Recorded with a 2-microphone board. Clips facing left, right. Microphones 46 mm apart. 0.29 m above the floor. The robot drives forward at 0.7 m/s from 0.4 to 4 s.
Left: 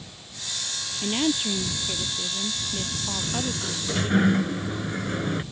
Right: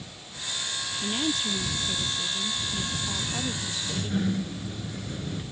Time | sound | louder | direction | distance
1.0 | a woman speaking | left 4 dB | 30° left (ahead or behind) | ?
3.2 | a sliding door | left 2 dB | 65° left (ahead or behind) | ?